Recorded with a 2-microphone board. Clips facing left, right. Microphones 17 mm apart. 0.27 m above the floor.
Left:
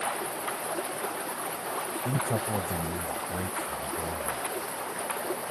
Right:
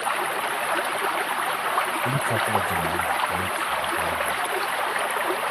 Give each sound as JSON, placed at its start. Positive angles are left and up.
{"t": 0.0, "sound": "running water", "side_deg": -75}
{"t": 2.0, "sound": "a man speaking", "side_deg": -20}